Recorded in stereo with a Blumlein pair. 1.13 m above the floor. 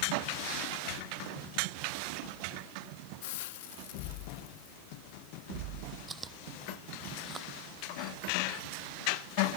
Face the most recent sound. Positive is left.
turn(degrees=-15)